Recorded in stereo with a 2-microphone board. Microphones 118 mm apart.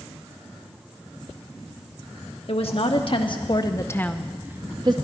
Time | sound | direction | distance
2.5 | a woman speaking | 60° left (ahead or behind) | 1.2 m